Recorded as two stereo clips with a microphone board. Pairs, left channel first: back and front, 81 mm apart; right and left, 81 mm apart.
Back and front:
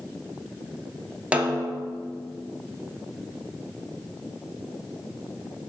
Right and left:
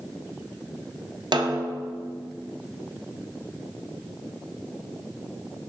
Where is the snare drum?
70° left, 0.9 m.